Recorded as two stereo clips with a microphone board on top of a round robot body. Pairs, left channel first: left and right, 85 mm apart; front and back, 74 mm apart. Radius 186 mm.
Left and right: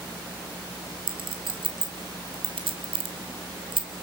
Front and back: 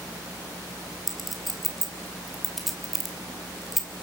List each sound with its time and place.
1.1 s a clink: 90° right, 2.5 m